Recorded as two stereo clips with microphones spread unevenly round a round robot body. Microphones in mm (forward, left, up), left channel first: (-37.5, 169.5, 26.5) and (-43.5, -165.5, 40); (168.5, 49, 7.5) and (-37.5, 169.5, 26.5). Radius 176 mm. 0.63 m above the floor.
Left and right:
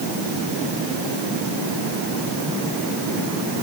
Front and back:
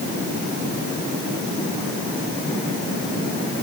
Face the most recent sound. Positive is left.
No sound to turn to.